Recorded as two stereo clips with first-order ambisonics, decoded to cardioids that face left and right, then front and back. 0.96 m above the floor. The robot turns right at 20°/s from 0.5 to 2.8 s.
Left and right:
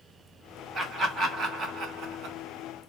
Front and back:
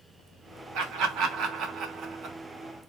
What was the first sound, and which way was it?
Laughter, 155° right.